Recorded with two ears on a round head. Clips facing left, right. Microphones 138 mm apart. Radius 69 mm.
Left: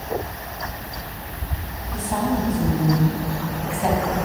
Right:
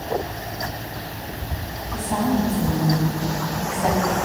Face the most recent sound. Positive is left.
turn(degrees=0)  # may be behind; listen again after turning